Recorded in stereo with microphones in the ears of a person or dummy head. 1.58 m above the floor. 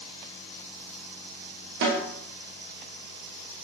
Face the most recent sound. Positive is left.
turn(degrees=-60)  # may be behind; listen again after turning